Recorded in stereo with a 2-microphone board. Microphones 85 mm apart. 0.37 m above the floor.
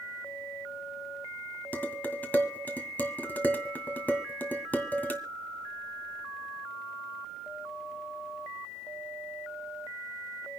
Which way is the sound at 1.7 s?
20° left (ahead or behind).